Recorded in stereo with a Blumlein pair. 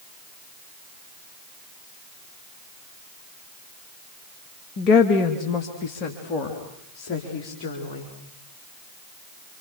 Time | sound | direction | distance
4.8 | a woman speaking | 35° left | 2.5 m